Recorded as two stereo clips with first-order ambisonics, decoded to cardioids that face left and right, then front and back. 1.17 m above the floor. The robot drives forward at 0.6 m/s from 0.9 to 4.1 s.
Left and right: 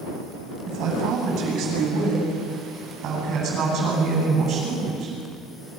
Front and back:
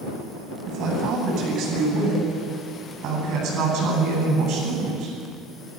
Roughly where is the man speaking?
Behind right.